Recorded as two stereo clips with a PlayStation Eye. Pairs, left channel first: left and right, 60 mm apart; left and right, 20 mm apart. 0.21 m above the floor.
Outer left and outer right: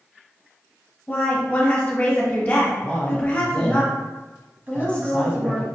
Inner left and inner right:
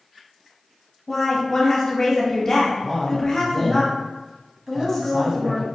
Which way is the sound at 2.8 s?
20° left (ahead or behind).